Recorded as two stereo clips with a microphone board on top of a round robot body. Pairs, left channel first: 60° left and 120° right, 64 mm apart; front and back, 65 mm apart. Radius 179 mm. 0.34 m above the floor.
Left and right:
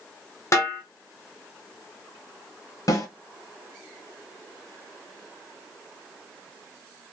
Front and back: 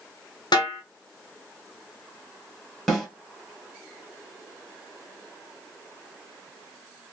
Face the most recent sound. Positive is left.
turn(degrees=85)